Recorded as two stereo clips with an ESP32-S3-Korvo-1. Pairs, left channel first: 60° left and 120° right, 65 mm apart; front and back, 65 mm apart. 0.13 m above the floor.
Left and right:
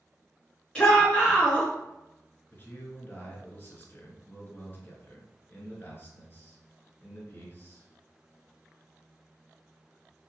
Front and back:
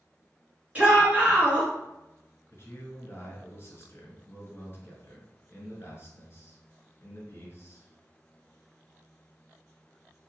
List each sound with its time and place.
0.8 s a shout: 125° left, 1.9 m
2.5 s a man speaking: 20° left, 1.4 m